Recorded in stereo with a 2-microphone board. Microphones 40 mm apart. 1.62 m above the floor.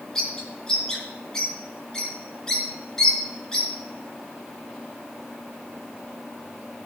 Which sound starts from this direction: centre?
A bird, at 0.1 s.